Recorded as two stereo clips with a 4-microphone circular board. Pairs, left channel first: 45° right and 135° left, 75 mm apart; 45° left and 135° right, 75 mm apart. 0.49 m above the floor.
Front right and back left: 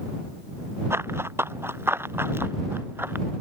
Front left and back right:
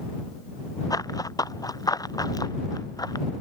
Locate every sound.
0.9 s running footsteps: 80° left; by 3.3 s 75° left